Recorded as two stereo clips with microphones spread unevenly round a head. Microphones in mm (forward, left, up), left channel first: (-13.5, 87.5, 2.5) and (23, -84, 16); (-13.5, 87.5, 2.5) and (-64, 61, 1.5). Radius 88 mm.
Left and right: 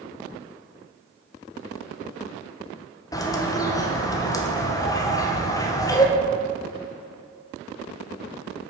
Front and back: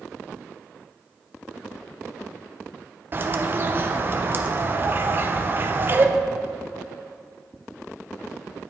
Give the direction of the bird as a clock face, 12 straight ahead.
6 o'clock.